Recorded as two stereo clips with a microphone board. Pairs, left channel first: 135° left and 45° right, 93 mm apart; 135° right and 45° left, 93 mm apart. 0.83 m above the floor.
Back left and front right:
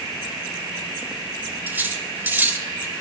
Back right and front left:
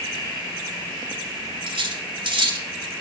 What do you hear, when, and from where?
1.7 s cutlery clinking: 25° left, 1.8 m